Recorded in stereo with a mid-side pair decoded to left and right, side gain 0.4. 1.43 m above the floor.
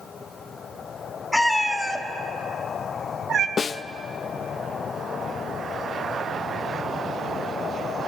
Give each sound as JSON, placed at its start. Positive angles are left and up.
{"t": 1.3, "sound": "a cat meowing", "azimuth_deg": 5, "distance_m": 2.0}
{"t": 3.6, "sound": "a snare drum", "azimuth_deg": 45, "distance_m": 0.5}